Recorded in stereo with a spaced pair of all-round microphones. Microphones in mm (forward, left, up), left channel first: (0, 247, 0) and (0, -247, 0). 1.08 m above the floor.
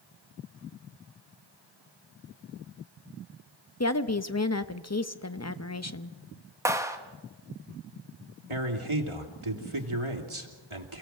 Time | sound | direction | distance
3.8 | a woman speaking | 30° left (ahead or behind) | 0.8 m
6.7 | a clap | 5° right (ahead or behind) | 1.5 m
8.5 | a man speaking | 70° right (ahead or behind) | 2.5 m